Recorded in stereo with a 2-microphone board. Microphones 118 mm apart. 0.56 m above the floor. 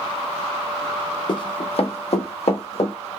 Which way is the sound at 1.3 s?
40° left (ahead or behind).